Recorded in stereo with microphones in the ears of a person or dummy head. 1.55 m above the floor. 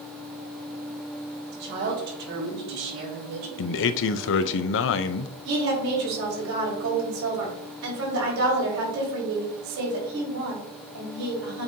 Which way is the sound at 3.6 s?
65° left (ahead or behind).